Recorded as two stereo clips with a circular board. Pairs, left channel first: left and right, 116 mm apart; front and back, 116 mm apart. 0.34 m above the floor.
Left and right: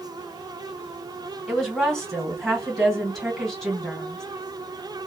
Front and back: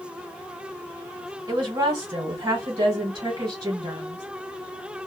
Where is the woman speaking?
Straight behind, 1.6 m.